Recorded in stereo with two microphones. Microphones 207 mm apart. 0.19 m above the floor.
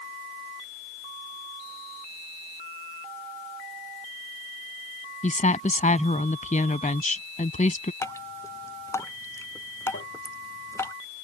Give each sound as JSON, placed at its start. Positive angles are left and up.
{"t": 5.2, "sound": "a woman speaking", "side_deg": 40}
{"t": 8.0, "sound": "dripping", "side_deg": 15}
{"t": 9.9, "sound": "tapping", "side_deg": 80}